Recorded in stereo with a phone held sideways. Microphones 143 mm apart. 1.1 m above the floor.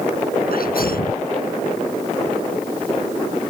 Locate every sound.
0.5 s a sneeze: 75° left (ahead or behind)